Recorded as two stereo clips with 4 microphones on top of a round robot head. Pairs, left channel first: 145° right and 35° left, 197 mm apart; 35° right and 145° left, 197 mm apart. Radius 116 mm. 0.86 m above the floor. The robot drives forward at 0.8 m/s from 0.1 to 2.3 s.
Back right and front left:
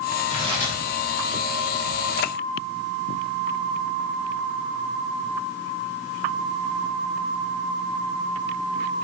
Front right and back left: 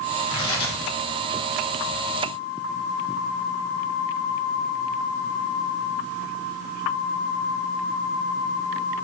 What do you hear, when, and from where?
0.3 s tearing paper: 25° right, 1.6 m; by 0.8 s 35° right, 1.3 m